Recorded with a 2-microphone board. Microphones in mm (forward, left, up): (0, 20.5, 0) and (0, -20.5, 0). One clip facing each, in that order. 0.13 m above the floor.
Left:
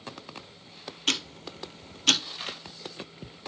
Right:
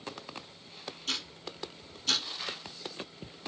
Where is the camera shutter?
35° left (ahead or behind), 2.5 m.